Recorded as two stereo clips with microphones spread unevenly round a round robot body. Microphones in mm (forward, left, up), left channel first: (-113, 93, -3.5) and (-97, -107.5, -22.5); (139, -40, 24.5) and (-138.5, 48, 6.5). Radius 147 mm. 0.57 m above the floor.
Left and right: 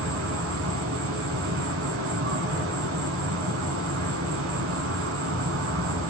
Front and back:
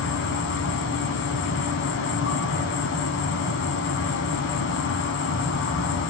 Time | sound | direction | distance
0.0 | an insect | 65° right | 0.9 m